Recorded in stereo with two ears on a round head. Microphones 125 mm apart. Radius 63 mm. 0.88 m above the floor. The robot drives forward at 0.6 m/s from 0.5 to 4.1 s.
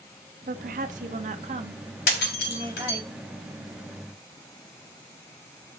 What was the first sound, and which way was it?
A woman speaking, 65° right (ahead or behind).